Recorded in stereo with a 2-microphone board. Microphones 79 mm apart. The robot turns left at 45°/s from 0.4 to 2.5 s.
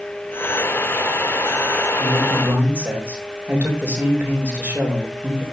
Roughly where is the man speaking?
Right.